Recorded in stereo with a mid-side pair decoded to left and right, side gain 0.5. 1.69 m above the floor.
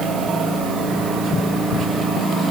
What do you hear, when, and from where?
Only background noise.